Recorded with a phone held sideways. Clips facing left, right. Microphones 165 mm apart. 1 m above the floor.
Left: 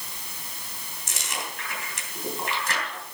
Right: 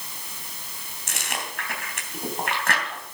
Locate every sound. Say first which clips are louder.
1.1 s chewing: right 2 dB; 65° right (ahead or behind), 3 m